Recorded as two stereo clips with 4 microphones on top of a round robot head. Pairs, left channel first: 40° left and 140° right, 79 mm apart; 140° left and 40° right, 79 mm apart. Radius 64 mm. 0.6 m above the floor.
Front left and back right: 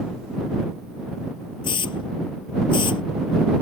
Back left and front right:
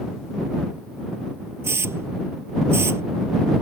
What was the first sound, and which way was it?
A hiss, 15° left.